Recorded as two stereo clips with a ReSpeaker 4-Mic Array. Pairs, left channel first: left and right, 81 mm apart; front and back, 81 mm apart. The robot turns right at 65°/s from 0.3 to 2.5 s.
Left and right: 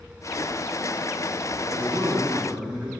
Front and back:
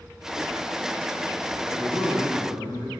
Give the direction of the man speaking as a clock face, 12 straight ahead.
2 o'clock.